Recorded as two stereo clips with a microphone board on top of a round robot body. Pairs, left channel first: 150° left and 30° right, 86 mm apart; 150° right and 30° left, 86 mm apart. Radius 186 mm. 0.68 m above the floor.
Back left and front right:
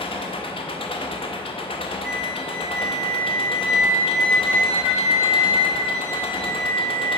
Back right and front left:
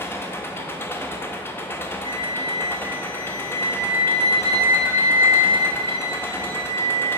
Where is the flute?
115° right, 0.7 m.